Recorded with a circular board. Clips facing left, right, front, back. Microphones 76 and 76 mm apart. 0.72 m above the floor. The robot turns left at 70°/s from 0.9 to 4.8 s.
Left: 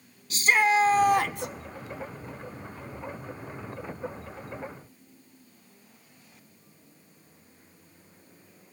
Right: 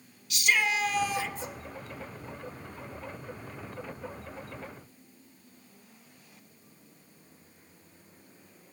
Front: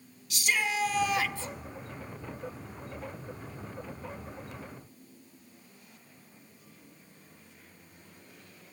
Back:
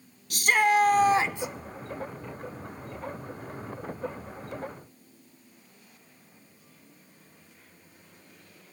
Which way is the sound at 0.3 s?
140° left.